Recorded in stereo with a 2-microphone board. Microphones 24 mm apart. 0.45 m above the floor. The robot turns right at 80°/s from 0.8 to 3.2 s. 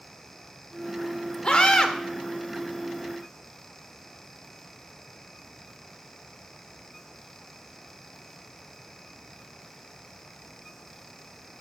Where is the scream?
85° left, 1.2 m; by 1.9 s 120° left, 1.2 m.